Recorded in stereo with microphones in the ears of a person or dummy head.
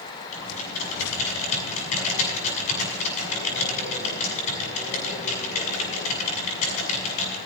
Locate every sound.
0.3 s typing on a keyboard: 45° left (ahead or behind), 7 m